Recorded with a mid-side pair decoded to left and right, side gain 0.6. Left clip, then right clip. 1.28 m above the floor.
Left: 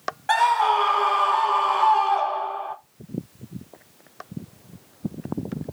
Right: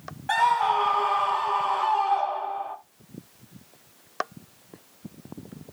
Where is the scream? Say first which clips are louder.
Left 3 dB; 30° left, 2.0 m.